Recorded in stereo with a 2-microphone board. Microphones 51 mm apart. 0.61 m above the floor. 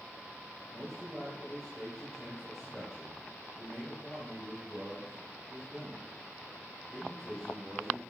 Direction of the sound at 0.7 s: Centre (ahead or behind).